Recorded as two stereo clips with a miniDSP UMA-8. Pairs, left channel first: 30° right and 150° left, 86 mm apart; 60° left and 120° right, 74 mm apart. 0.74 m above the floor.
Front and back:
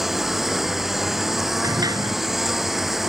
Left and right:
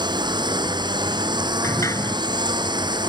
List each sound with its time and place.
0.0 s a lawn mower: 125° right
1.6 s a sliding door: 105° left